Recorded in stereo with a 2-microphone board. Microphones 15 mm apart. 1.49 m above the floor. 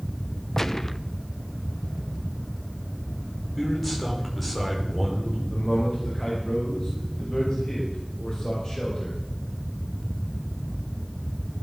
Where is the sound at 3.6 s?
10° left (ahead or behind), 5 m.